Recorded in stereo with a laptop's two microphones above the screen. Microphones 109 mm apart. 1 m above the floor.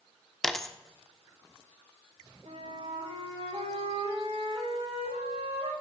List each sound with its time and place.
0.4 s a dropped coin: 5° left (ahead or behind), 0.7 m
2.5 s a flute: 80° right, 6 m